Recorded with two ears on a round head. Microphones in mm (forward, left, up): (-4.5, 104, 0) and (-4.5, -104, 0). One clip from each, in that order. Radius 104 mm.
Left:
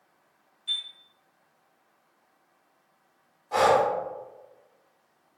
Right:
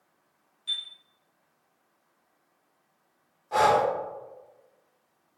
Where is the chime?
15° right (ahead or behind), 1.2 m.